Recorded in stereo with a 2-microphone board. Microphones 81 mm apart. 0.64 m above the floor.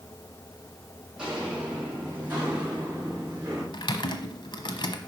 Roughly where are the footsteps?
Centre.